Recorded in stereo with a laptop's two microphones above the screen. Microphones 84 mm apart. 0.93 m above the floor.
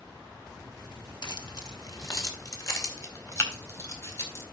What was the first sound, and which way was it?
Keys jangling, 55° left (ahead or behind).